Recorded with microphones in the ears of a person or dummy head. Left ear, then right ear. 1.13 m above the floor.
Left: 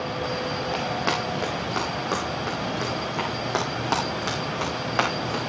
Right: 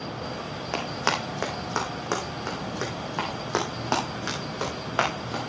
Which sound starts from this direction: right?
Running footsteps, at 0.7 s.